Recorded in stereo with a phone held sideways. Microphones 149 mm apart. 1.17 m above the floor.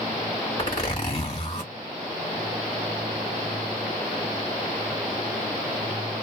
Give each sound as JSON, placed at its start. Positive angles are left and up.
{"t": 0.6, "sound": "a zipper", "side_deg": 35, "distance_m": 1.6}